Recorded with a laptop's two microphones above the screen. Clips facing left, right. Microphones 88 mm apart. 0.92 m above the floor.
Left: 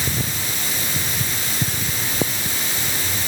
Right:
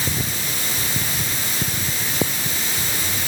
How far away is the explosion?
No explosion in this recording.